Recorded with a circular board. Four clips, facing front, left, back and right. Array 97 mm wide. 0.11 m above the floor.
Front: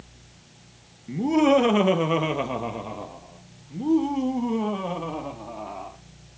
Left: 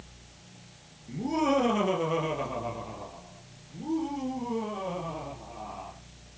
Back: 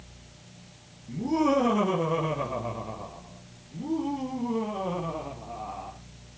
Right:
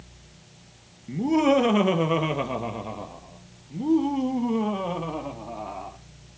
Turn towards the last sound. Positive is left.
turn(degrees=-50)